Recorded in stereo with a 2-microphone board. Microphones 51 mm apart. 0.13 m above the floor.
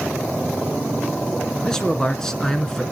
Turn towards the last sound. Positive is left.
turn(degrees=10)  # may be behind; listen again after turning